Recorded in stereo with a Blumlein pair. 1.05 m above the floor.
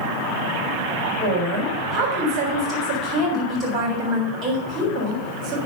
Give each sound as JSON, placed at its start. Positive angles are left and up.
{"t": 1.2, "sound": "a woman speaking", "azimuth_deg": -25, "distance_m": 4.0}